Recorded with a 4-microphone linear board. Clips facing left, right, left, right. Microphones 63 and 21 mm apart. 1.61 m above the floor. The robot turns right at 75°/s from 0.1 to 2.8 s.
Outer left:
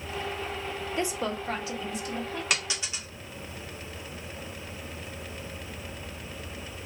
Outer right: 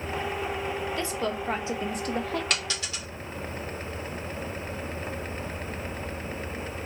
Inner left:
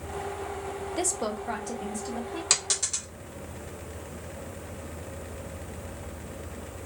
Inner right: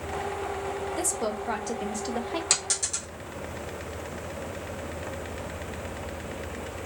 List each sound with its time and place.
1.0 s a woman speaking: 155° left, 0.6 m; by 2.4 s 95° right, 0.6 m
2.5 s a dropped coin: 10° left (ahead or behind), 1.2 m; by 3.0 s 20° left (ahead or behind), 1.2 m